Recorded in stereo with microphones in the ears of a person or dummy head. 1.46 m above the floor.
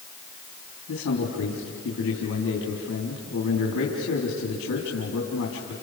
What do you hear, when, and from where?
0.9 s a man speaking: 75° left (ahead or behind), 4 m